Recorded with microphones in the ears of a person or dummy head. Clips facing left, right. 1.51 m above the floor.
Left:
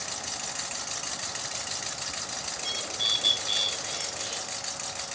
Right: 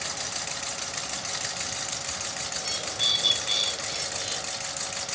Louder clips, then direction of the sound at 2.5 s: Right 2 dB; 20° right (ahead or behind).